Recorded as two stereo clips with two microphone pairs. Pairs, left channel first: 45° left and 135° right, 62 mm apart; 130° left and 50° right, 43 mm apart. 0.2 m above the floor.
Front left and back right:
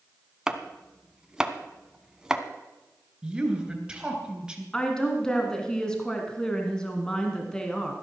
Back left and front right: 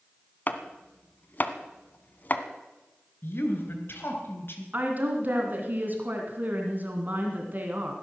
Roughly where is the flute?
No flute in this recording.